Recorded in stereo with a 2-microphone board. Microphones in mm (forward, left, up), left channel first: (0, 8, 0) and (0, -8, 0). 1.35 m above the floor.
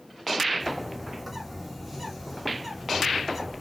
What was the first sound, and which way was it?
A bird, 10° right (ahead or behind).